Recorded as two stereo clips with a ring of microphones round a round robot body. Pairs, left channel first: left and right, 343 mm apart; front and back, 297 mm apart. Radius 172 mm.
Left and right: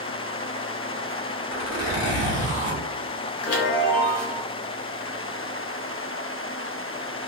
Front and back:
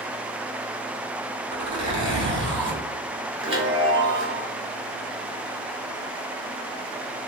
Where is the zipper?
140° left, 1.6 m.